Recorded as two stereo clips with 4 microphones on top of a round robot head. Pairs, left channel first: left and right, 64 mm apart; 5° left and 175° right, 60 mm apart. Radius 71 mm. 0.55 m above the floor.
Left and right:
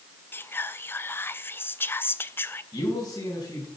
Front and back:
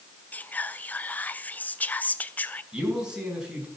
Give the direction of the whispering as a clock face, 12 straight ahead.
10 o'clock.